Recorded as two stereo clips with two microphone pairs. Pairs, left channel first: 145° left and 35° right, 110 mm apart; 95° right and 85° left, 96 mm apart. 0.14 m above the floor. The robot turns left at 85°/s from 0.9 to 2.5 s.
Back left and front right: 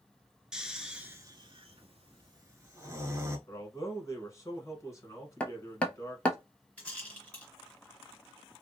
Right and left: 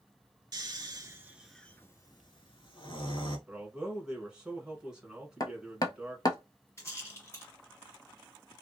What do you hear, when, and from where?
0.5 s snoring: 45° left, 0.6 m; by 3.4 s 90° right, 0.6 m
3.5 s a man speaking: 160° left, 1.1 m
5.4 s hammering: 135° right, 0.6 m
6.8 s a rattle: 140° right, 2 m